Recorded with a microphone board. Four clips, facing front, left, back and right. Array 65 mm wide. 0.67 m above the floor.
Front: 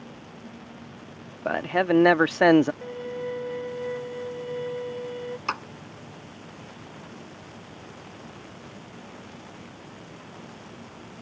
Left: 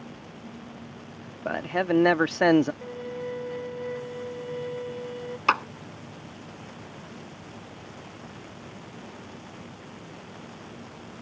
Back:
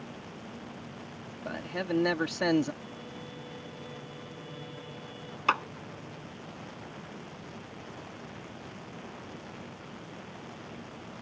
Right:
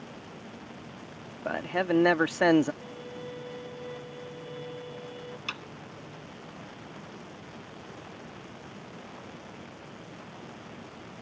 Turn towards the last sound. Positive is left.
turn(degrees=105)